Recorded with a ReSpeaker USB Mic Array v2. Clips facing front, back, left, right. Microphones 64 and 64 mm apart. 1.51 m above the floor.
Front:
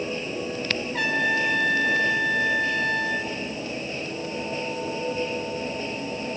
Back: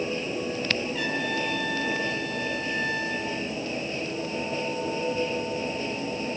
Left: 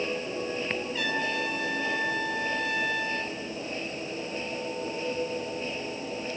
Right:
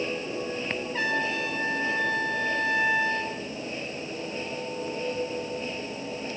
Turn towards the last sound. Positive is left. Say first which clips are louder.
# front 5 dB, right 4 dB
turn(degrees=-35)